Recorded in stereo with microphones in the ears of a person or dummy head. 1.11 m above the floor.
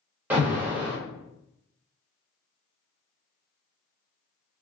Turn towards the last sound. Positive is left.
turn(degrees=-15)  # may be behind; listen again after turning